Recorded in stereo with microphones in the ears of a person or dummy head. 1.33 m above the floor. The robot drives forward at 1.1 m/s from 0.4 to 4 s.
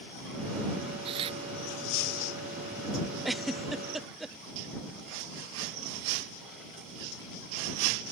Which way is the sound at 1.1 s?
30° right (ahead or behind).